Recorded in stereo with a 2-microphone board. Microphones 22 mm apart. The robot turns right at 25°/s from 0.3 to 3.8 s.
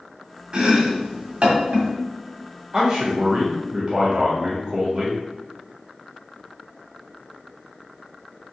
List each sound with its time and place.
0.5 s chopping: 45° right (ahead or behind), 1.8 m; by 1.9 s 70° right (ahead or behind), 1.8 m
2.7 s a man speaking: 30° right (ahead or behind), 1.5 m